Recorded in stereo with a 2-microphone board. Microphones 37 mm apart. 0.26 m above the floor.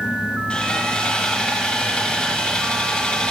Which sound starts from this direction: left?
Sawing, at 0.5 s.